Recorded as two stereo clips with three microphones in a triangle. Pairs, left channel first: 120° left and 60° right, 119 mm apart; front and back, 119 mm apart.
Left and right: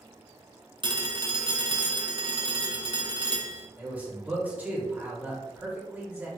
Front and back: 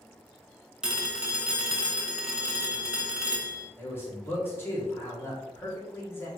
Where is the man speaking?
15° right, 1.0 m.